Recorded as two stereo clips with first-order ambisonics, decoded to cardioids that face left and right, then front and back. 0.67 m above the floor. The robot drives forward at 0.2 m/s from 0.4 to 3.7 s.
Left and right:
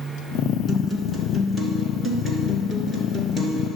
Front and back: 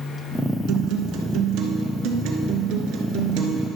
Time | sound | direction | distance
0.7 | a guitar | 170° left | 1.2 m